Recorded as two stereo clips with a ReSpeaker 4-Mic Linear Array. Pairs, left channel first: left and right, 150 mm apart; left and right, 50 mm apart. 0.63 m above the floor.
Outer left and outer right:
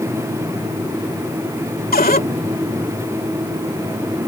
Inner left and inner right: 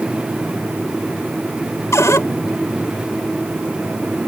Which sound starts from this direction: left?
A cupboard door, at 1.9 s.